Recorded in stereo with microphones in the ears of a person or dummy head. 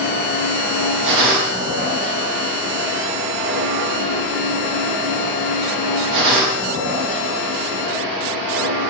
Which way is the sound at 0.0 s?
65° right (ahead or behind).